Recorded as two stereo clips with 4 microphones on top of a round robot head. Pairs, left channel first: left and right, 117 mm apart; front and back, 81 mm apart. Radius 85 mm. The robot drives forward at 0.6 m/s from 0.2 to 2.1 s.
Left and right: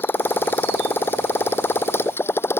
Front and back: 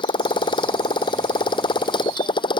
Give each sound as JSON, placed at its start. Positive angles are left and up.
{"t": 0.0, "sound": "a motorcycle", "azimuth_deg": 20}